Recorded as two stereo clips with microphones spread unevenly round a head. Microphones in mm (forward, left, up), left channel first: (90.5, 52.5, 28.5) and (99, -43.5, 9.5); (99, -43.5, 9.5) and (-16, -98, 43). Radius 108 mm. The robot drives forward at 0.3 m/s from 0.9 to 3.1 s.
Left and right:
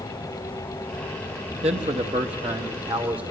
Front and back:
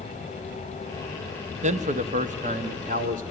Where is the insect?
175° left, 4 m.